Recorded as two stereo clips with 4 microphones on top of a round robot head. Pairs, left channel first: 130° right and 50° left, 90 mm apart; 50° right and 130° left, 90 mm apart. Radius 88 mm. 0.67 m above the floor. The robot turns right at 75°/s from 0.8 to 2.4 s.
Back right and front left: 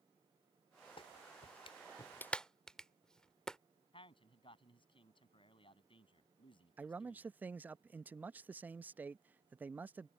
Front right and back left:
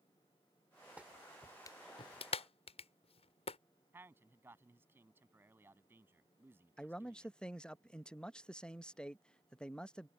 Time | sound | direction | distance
1.0 | a clap | 155° right | ?
3.9 | a man speaking | 160° right | ?
6.8 | a man speaking | 15° left | ?